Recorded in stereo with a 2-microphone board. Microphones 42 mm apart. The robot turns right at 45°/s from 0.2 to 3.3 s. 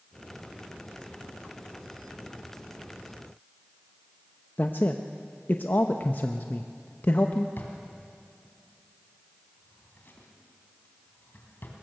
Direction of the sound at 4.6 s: 55° left (ahead or behind).